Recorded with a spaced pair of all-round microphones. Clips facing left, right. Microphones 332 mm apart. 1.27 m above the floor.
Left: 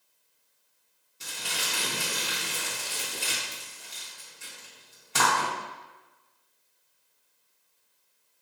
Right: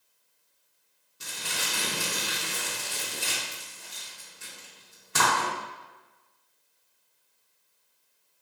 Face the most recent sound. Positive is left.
turn(degrees=-20)  # may be behind; listen again after turning